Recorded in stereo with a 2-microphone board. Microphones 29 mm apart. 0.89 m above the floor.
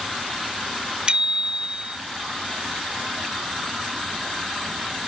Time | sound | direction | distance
1.1 | a bicycle bell | 40° right (ahead or behind) | ?